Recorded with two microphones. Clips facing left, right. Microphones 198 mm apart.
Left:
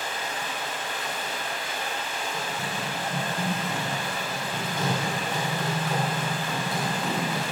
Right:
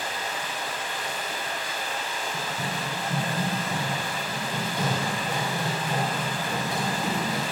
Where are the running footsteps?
10° right (ahead or behind), 0.9 m; by 7.4 s 15° right (ahead or behind), 3.5 m.